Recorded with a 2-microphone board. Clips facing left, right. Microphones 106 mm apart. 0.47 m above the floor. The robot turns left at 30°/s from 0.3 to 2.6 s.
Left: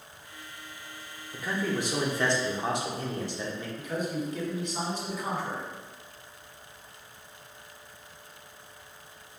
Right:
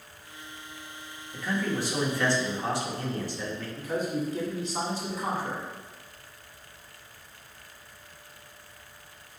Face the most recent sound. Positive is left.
turn(degrees=-30)  # may be behind; listen again after turning